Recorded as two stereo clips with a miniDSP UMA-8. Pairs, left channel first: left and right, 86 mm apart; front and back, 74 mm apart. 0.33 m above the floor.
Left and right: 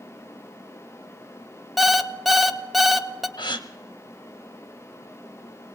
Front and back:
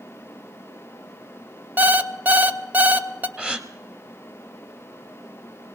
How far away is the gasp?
About 0.9 m.